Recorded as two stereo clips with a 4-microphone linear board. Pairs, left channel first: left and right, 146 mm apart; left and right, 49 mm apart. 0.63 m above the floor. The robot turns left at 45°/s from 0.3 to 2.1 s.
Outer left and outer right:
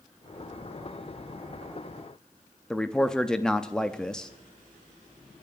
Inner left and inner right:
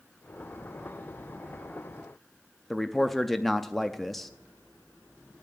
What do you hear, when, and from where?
2.7 s a man speaking: 5° left (ahead or behind), 0.5 m